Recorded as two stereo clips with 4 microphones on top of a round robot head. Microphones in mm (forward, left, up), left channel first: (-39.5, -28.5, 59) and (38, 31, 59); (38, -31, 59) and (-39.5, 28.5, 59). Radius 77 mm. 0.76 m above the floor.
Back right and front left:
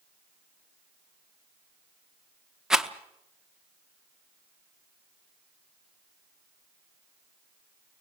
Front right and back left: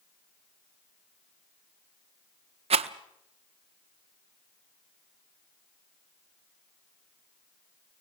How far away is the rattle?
About 0.9 m.